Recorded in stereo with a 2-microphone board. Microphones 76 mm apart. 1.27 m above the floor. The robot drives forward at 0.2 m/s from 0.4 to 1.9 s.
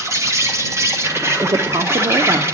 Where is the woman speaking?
75° right (ahead or behind), 0.7 m; by 2.4 s 70° right (ahead or behind), 0.7 m.